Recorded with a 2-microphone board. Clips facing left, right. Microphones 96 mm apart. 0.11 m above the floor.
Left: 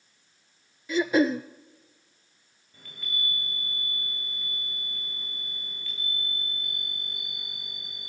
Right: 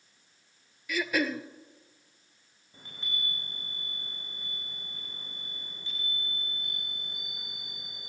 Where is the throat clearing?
25° left (ahead or behind), 0.8 m.